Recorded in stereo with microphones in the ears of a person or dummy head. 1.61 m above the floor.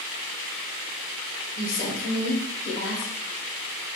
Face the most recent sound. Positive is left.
turn(degrees=25)  # may be behind; listen again after turning